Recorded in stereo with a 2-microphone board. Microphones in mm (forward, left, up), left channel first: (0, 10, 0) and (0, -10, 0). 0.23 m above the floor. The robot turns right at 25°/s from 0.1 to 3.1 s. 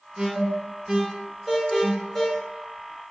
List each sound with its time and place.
0.2 s an alarm: 25° right (ahead or behind), 2.5 m; by 2.3 s 25° left (ahead or behind), 2.5 m